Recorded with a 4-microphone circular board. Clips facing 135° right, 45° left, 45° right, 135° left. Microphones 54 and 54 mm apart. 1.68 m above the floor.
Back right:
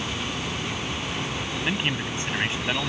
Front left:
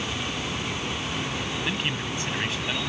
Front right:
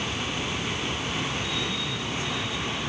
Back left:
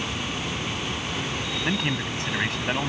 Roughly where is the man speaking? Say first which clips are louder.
Back right 5 dB, back left 4 dB; behind left.